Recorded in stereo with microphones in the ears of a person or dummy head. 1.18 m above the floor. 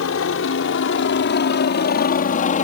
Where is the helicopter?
65° left (ahead or behind); by 2.6 s 35° left (ahead or behind).